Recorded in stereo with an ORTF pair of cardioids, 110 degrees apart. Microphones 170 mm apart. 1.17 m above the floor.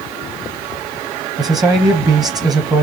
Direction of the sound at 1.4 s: 25° right.